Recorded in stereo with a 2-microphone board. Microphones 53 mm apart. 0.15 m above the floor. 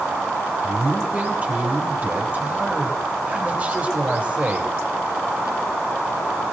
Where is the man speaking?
25° right (ahead or behind), 4 m.